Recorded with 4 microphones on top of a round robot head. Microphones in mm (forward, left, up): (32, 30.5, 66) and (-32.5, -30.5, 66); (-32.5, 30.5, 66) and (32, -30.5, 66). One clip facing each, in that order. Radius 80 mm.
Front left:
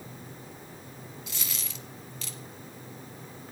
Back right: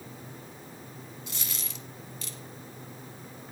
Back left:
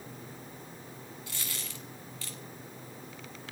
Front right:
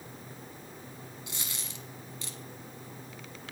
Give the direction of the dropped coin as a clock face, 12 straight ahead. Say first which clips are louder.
Even, back left 1 dB; 11 o'clock.